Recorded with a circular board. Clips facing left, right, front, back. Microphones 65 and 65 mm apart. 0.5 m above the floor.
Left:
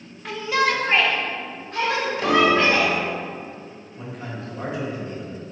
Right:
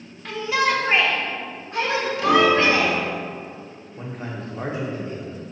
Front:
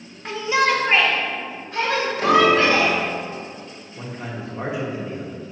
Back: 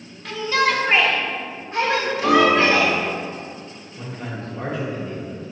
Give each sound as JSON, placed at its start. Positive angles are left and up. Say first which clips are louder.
{"t": 0.2, "sound": "a shout", "louder": "even, front 1 dB", "azimuth_deg": 15, "distance_m": 0.7}
{"t": 2.2, "sound": "a piano", "louder": "right 1 dB, even", "azimuth_deg": 35, "distance_m": 0.9}
{"t": 4.0, "sound": "a man speaking", "louder": "right 2 dB, even", "azimuth_deg": -70, "distance_m": 0.9}